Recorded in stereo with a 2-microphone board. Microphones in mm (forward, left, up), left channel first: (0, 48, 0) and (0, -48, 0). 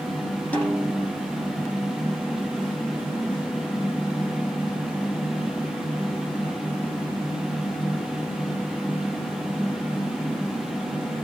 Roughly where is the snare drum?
Centre.